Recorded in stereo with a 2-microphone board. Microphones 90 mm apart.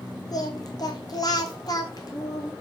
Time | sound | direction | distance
0.3 | singing | 45° left (ahead or behind) | 1.8 m